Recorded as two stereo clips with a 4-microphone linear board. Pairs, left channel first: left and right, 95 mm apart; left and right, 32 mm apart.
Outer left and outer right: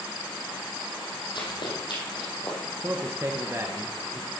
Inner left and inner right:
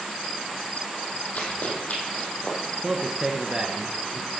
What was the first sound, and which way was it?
Running footsteps, 55° left (ahead or behind).